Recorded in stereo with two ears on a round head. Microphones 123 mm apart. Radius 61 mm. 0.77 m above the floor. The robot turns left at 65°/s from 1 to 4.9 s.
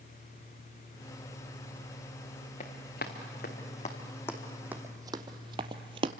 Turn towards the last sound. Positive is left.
turn(degrees=-40)  # may be behind; listen again after turning